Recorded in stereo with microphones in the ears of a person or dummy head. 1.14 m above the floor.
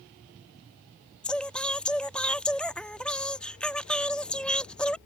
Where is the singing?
5° left (ahead or behind).